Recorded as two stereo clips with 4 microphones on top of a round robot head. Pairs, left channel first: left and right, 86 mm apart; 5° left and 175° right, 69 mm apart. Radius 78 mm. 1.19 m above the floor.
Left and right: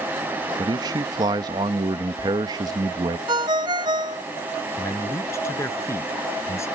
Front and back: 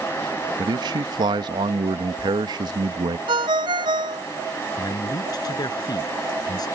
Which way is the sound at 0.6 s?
140° right.